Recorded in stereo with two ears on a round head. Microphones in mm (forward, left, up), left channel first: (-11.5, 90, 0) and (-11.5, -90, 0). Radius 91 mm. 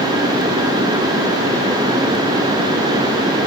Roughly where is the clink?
I don't hear a clink.